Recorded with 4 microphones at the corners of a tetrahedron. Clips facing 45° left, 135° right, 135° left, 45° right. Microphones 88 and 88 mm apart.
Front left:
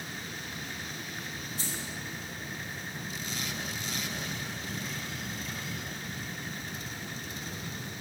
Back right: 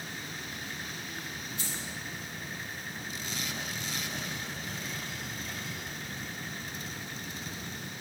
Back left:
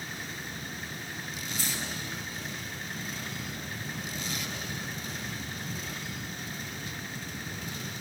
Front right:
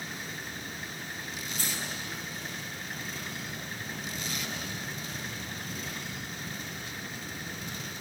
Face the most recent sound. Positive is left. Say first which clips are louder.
# front left 1 dB, back left 1 dB
turn(degrees=-5)